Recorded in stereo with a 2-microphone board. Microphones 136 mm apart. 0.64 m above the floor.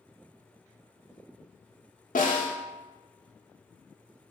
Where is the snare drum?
80° left, 0.6 m.